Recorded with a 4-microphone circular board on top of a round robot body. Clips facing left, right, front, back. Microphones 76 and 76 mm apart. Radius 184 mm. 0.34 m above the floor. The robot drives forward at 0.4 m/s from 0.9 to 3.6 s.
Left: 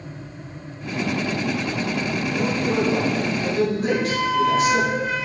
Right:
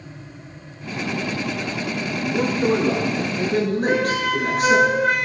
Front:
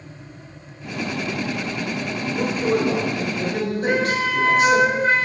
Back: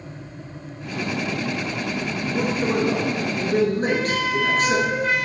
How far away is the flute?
About 1.0 m.